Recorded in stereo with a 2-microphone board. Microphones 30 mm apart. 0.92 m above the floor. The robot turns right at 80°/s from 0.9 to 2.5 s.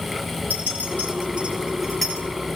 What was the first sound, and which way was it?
A clink, 80° right.